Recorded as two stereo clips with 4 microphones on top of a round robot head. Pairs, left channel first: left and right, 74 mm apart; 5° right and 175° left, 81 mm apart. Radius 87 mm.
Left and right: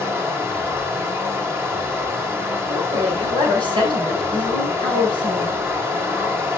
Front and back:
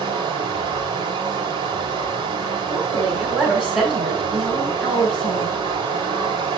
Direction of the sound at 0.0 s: 150° right.